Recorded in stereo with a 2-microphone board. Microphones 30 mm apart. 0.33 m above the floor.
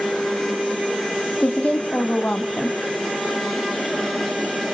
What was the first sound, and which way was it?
A woman speaking, 55° left (ahead or behind).